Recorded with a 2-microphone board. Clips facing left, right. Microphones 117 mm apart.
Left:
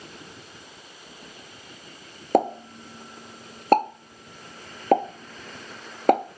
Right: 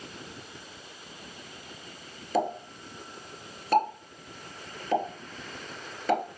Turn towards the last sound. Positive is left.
turn(degrees=55)  # may be behind; listen again after turning